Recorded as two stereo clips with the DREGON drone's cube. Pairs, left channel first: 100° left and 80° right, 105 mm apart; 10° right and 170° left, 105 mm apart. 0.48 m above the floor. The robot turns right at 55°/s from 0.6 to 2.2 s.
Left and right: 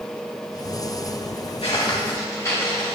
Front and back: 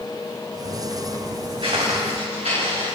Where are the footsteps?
130° left, 3.5 m; by 3.0 s 160° left, 4.5 m.